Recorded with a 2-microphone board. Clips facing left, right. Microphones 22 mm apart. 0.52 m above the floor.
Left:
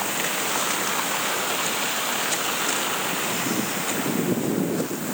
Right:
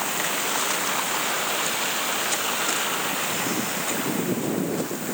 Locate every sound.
Only background noise.